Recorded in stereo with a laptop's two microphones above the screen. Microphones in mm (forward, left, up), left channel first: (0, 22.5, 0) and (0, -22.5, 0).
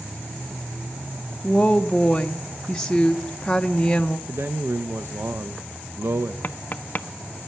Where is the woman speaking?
15° left (ahead or behind), 0.6 m.